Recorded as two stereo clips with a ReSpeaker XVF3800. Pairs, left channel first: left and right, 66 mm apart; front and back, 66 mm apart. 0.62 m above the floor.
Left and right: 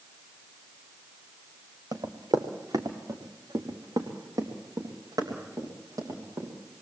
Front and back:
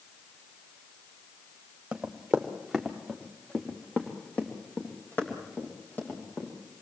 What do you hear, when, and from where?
1.9 s running footsteps: 100° right, 2.5 m; by 6.5 s 55° right, 6 m